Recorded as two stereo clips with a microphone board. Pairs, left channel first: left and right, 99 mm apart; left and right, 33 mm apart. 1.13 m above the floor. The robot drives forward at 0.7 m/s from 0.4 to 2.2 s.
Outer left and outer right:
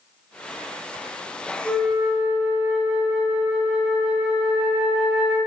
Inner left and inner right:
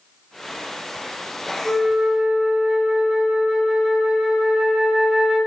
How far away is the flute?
About 1.8 m.